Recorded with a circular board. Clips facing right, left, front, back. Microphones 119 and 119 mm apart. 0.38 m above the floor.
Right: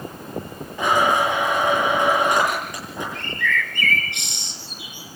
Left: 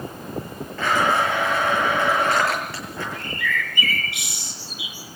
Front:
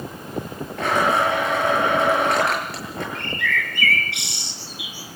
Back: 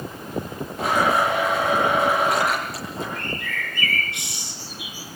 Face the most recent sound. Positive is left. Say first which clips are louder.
# right 3 dB, front 4 dB
turn(degrees=5)